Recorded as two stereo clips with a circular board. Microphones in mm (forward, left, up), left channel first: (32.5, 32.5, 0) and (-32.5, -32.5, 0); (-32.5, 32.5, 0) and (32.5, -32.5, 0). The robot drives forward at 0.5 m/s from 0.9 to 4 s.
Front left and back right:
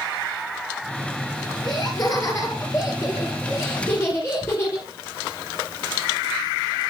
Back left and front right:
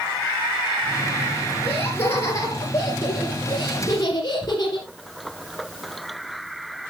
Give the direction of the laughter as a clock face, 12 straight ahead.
9 o'clock.